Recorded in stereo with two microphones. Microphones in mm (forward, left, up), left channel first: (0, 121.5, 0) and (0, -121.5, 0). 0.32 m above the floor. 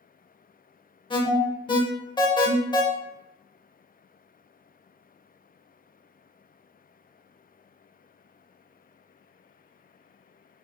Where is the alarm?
20° left (ahead or behind), 0.5 m.